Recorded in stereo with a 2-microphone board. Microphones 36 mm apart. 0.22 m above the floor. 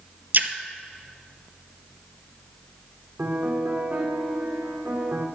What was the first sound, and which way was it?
A splash, 55° right (ahead or behind).